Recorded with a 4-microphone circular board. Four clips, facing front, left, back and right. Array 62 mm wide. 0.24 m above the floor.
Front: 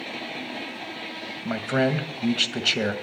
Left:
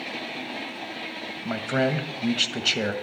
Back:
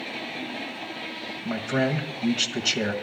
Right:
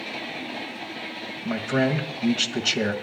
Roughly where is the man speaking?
Ahead.